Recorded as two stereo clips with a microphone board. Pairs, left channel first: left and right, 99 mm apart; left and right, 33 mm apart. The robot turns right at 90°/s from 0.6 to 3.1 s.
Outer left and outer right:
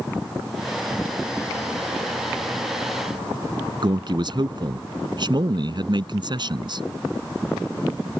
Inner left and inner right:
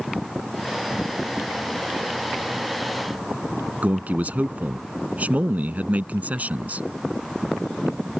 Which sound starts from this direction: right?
A man speaking, at 3.8 s.